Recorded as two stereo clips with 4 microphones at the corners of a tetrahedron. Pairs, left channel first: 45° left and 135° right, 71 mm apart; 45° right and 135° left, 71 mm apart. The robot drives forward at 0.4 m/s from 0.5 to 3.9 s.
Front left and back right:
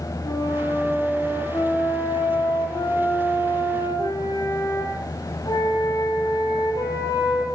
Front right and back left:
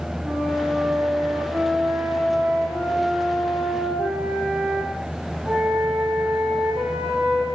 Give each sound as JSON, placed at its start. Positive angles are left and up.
{"t": 0.2, "sound": "a flute", "azimuth_deg": 50, "distance_m": 7.5}